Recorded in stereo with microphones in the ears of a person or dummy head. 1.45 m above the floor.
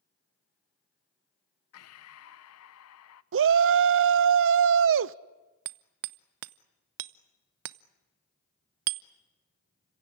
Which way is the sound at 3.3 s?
55° right (ahead or behind).